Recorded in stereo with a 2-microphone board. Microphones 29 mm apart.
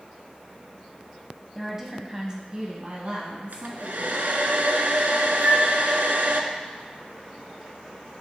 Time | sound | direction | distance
1.6 | a woman speaking | centre (ahead or behind) | 1.0 m
3.5 | a hair dryer | 75° right (ahead or behind) | 0.7 m
5.4 | a flute | 60° right (ahead or behind) | 2.5 m